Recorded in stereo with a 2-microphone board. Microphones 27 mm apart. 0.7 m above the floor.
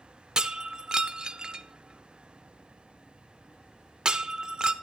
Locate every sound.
0.4 s breaking glass: 30° right (ahead or behind), 0.6 m